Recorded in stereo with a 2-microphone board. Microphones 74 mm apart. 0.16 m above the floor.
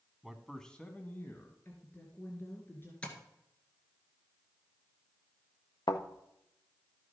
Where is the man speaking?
5° right (ahead or behind), 1.0 m; by 1.6 s 30° left (ahead or behind), 1.6 m.